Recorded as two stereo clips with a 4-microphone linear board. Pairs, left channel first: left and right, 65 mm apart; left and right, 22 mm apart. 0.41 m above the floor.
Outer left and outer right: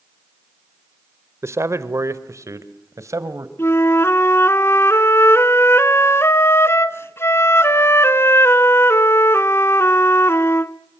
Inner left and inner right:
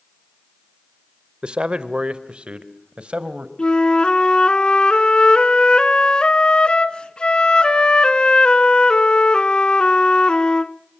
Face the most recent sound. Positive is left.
turn(degrees=40)  # may be behind; listen again after turning